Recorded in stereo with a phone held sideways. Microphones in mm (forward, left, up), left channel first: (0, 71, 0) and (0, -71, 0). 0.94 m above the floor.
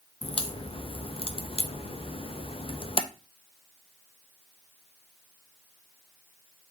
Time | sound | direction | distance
0.2 | a crack | 40° left (ahead or behind) | 0.5 m